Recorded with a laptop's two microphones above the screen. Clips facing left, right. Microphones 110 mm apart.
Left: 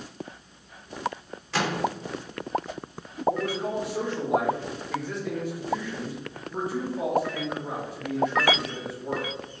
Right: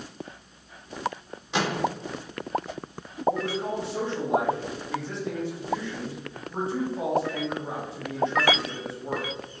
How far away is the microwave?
About 0.6 m.